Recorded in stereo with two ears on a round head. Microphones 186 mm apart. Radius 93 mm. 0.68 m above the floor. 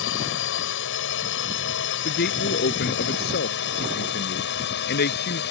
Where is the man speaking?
50° left (ahead or behind).